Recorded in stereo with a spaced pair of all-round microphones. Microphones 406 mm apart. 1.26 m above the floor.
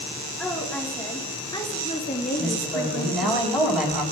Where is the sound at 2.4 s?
Centre (ahead or behind), 9.5 m.